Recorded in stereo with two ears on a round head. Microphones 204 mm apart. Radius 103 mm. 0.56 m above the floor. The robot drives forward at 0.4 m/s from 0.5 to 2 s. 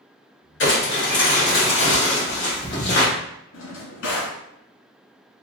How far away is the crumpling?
About 2.0 m.